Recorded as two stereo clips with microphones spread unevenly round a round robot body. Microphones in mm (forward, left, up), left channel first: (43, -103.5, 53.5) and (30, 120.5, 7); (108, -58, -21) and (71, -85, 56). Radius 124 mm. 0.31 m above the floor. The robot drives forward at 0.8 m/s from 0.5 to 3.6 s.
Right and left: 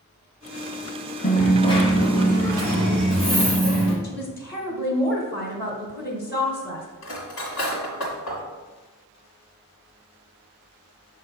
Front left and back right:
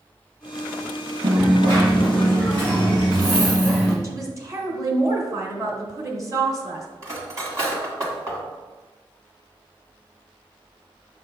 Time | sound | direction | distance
1.2 | a dropped coin | 145° right | 0.7 m
4.0 | a woman speaking | 55° right | 1.8 m
7.0 | cutlery clinking | 95° right | 1.7 m